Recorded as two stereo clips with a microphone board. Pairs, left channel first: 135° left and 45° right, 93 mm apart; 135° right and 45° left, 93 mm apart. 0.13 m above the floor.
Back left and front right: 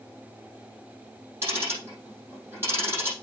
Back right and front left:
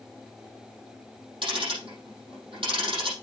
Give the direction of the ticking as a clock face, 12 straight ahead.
11 o'clock.